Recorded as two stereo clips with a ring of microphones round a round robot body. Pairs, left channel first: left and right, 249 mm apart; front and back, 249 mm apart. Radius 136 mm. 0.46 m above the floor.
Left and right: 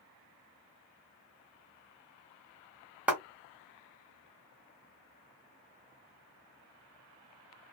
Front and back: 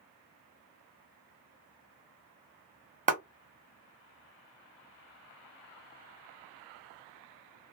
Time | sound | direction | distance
3.1 | a clap | 170° right | 1.0 m